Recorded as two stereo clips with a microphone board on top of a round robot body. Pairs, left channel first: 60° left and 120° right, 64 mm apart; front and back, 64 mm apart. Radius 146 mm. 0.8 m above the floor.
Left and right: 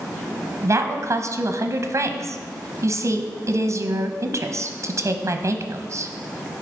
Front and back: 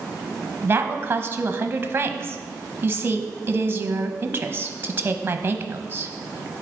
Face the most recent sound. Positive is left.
turn(degrees=-130)